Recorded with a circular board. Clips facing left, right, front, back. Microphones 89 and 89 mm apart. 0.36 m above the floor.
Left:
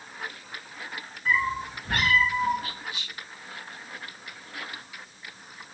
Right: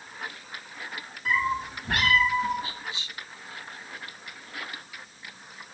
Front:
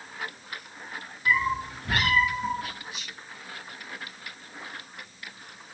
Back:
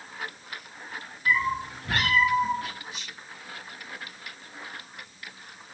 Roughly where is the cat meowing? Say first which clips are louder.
Even, even; right.